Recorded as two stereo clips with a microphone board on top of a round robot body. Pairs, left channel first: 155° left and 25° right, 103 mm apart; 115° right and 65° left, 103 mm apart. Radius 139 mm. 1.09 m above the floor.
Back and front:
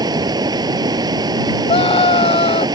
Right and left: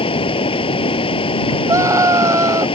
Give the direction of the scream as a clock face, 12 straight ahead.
8 o'clock.